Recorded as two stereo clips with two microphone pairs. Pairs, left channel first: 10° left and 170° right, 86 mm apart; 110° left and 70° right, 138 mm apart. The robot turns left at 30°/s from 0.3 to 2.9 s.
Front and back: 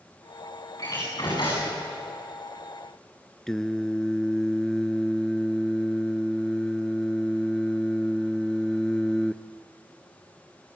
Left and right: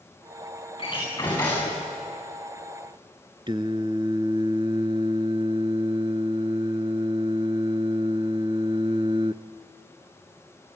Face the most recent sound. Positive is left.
turn(degrees=-70)